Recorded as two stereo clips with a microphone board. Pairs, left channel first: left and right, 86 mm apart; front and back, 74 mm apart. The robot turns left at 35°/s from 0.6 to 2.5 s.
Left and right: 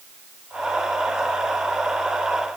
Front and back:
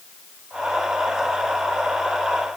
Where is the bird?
No bird in this recording.